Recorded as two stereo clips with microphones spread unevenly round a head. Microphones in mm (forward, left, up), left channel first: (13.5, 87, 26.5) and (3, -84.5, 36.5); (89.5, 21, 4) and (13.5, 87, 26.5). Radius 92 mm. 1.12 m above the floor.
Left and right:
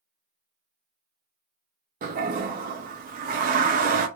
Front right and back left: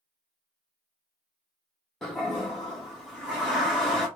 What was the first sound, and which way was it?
A toilet flushing, 115° right.